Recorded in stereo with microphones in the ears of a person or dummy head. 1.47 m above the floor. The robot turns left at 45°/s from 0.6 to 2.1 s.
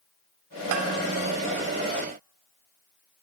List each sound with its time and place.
0.7 s a bell: 80° right, 3 m